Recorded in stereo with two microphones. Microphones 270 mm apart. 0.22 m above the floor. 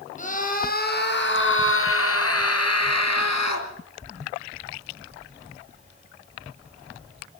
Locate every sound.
0.2 s a scream: 25° left (ahead or behind), 4.5 m; by 3.7 s 75° left (ahead or behind), 4.5 m